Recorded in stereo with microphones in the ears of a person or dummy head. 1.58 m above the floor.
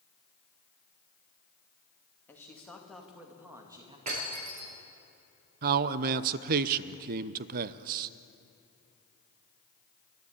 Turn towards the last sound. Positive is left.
turn(degrees=-50)  # may be behind; listen again after turning